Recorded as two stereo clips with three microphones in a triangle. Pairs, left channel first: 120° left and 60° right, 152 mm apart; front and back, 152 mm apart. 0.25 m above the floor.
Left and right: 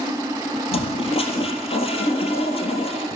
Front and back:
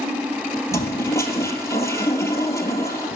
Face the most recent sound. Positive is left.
turn(degrees=70)